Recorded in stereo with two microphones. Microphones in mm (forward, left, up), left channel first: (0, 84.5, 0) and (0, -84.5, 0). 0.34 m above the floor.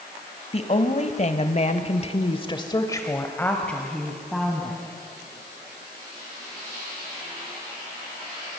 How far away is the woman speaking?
About 1.7 m.